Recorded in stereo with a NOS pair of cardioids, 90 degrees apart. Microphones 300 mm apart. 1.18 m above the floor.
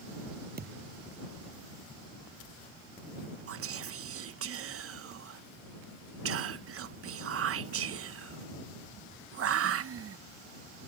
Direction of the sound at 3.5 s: 55° right.